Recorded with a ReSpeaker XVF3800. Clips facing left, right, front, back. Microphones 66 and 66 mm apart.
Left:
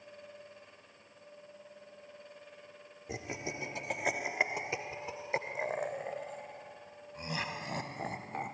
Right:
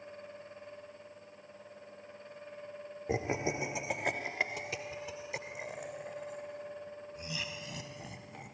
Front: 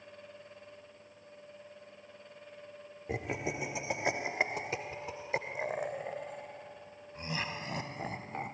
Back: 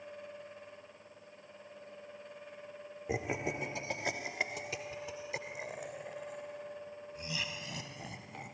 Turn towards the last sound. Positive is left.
turn(degrees=50)